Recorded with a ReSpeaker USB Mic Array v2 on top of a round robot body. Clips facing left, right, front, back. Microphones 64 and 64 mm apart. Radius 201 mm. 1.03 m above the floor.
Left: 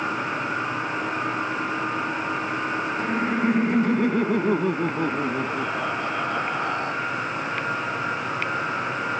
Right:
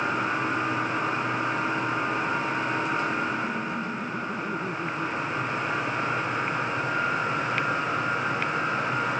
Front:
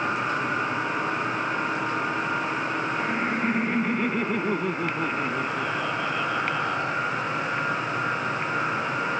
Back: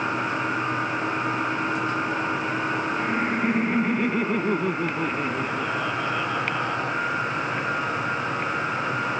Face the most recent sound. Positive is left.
turn(degrees=95)